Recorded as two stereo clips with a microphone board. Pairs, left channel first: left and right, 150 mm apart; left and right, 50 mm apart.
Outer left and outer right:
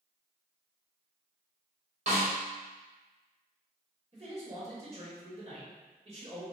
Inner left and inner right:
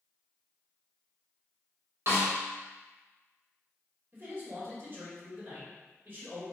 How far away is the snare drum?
About 1.2 m.